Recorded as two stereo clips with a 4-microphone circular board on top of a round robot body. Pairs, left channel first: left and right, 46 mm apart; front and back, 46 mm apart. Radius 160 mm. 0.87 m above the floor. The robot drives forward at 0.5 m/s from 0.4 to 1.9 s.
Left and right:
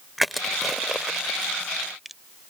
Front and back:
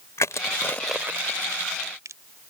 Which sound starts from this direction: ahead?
Crushing, at 0.2 s.